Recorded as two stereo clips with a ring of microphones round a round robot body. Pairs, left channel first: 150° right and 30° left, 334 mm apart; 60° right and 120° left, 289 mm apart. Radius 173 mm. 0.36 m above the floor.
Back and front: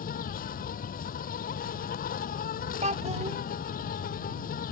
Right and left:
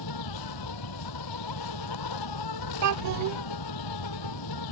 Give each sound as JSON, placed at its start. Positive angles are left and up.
{"t": 0.0, "sound": "an insect", "azimuth_deg": -85}
{"t": 2.8, "sound": "a child speaking", "azimuth_deg": 100}